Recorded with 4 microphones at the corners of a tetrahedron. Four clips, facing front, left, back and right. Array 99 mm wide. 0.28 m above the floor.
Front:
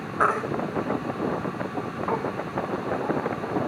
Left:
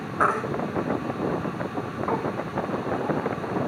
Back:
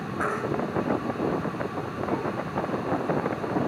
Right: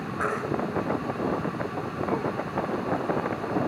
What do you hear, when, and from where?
0.2 s a baby crying: 45° left, 0.9 m